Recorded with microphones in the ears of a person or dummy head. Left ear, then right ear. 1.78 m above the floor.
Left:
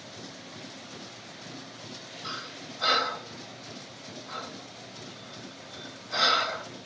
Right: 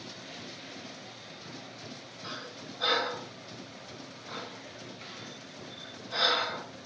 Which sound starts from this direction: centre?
Breathing, at 2.2 s.